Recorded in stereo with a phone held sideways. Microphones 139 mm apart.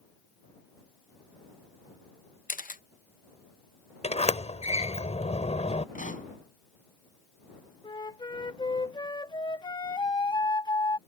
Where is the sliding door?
50° left (ahead or behind).